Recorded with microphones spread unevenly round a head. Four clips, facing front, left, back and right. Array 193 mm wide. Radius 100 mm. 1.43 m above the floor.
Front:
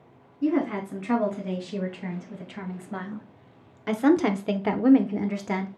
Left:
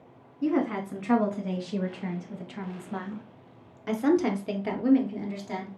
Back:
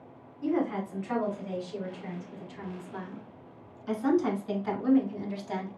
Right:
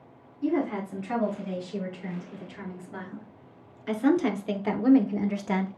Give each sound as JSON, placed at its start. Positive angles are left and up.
{"t": 0.4, "sound": "a woman speaking", "azimuth_deg": 55, "distance_m": 2.5}